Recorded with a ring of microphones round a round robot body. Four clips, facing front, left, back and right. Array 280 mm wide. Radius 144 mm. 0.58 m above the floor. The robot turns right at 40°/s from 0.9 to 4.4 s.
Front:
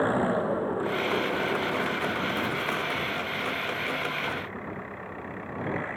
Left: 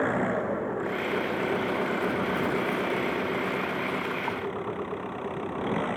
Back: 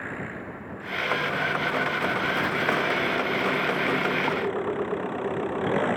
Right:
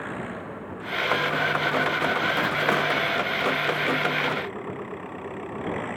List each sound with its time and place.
0.0 s an engine running: 35° left; by 6.0 s 175° left